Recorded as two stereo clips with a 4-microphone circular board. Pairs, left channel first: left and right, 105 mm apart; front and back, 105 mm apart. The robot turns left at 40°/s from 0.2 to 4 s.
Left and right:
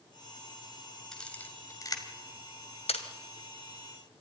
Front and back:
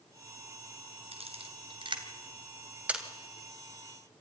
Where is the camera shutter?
175° left, 2.5 m; by 3.0 s 100° left, 2.5 m.